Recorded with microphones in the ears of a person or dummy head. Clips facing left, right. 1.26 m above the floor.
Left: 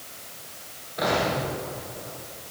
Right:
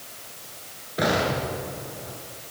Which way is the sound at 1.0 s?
30° right (ahead or behind).